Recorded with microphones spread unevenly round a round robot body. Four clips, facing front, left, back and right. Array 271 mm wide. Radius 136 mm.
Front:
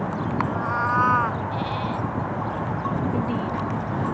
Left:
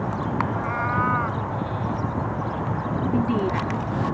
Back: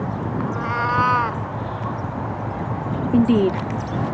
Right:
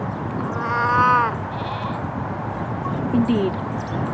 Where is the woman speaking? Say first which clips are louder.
Right 5 dB, back 9 dB; 160° right.